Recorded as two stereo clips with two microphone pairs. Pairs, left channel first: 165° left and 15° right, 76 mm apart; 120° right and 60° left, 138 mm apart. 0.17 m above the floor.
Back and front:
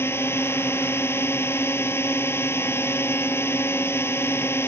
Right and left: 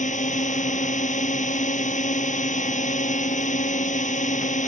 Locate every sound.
0.0 s a drone: 135° right